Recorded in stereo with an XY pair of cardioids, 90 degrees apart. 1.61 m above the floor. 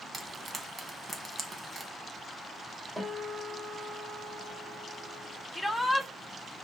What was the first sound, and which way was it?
Frying, 25° right.